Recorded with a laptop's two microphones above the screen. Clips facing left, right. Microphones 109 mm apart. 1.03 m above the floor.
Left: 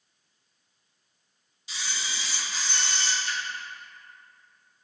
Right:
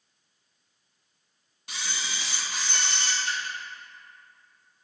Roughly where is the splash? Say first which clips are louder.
Right 1 dB; right.